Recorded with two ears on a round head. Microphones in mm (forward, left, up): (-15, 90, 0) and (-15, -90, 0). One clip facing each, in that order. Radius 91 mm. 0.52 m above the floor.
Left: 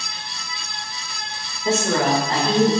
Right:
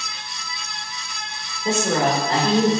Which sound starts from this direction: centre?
A woman speaking, at 1.6 s.